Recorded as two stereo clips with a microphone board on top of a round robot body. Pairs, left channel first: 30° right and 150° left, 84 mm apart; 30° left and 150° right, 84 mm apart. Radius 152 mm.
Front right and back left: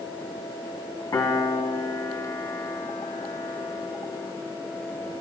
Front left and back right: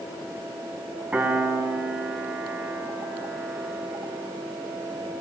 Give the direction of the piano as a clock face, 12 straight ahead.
3 o'clock.